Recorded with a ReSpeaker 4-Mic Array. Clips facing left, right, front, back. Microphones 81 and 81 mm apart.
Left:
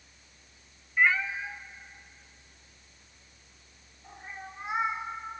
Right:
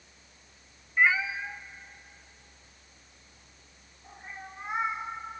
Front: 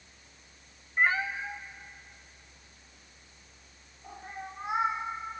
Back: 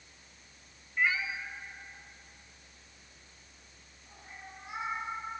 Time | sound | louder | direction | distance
1.0 | a cat meowing | right 1 dB, front 4 dB | 15° right | 0.5 m